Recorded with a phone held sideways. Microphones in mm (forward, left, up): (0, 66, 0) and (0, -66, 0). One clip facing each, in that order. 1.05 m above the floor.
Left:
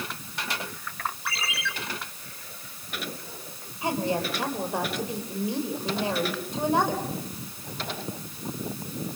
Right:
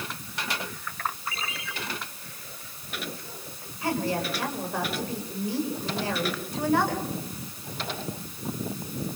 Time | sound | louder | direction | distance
1.2 | a ringtone | left 2 dB | 85° left | 9 m
3.8 | a woman speaking | left 1 dB | 20° left (ahead or behind) | 5.5 m